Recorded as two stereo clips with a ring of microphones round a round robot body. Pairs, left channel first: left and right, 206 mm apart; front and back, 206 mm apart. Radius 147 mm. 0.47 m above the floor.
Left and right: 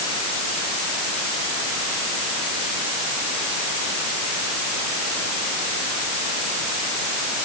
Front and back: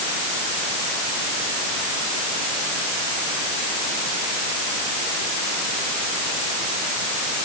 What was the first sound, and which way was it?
Only background noise.